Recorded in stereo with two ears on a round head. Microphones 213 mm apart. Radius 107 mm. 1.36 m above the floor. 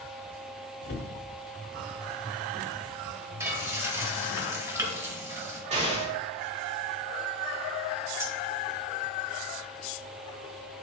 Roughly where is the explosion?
Right.